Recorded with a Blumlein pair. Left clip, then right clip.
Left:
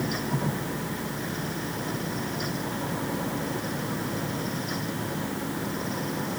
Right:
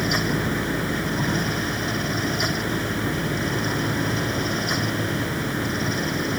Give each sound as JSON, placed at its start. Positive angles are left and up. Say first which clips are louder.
{"t": 0.0, "sound": "a fan", "louder": "right 7 dB", "azimuth_deg": -60}